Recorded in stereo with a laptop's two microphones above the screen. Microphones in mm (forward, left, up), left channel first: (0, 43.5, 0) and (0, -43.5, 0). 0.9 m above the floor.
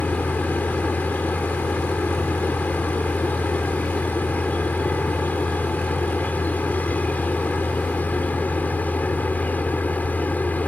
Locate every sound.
0.0 s a machine running: 20° left (ahead or behind)